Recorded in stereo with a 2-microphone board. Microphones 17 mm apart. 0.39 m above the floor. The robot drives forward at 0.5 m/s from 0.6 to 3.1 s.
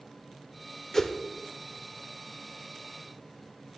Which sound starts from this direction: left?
A whoosh, at 0.9 s.